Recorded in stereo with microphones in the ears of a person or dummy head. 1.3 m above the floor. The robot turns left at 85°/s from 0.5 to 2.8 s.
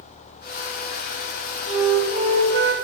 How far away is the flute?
About 0.6 m.